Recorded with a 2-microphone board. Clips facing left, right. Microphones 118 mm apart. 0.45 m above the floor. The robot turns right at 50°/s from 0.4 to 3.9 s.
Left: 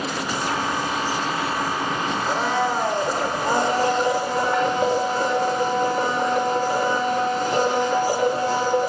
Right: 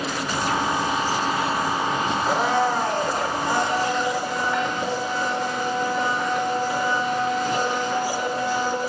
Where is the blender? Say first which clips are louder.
Right 1 dB; 15° right, 1.2 m; by 8.9 s 70° left, 1.2 m.